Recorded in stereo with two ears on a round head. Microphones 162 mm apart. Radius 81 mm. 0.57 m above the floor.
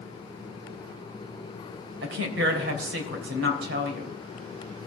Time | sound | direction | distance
2.0 | a woman speaking | 65° right (ahead or behind) | 3 m